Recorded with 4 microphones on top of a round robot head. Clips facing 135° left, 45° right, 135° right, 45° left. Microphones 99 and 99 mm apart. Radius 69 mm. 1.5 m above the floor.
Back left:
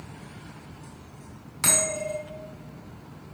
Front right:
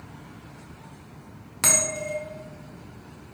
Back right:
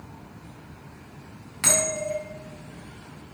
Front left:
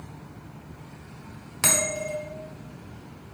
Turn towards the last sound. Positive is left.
turn(degrees=-10)